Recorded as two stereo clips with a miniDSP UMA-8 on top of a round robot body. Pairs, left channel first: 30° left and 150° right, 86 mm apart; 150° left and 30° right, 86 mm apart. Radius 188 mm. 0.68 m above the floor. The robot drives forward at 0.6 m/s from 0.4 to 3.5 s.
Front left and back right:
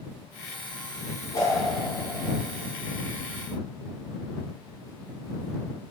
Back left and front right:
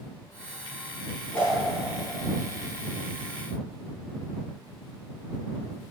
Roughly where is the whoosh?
Left.